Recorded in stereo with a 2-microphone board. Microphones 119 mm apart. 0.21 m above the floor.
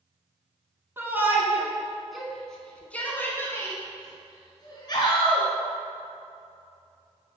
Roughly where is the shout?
Centre.